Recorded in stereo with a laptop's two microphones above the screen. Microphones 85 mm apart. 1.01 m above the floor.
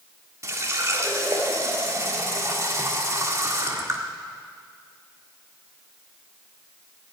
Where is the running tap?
35° right (ahead or behind), 1.7 m.